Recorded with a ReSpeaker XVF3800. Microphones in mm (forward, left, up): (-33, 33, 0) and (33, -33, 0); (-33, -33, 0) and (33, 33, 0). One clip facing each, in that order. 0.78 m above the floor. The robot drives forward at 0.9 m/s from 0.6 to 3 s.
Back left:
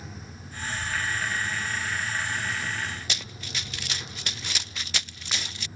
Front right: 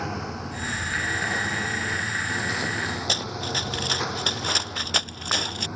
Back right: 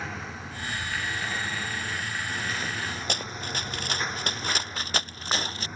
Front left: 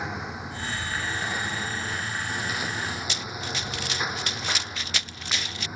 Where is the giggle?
No giggle in this recording.